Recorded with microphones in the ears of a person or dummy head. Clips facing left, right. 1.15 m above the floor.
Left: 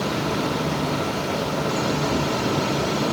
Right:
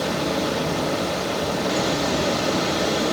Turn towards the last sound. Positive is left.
turn(degrees=-60)  # may be behind; listen again after turning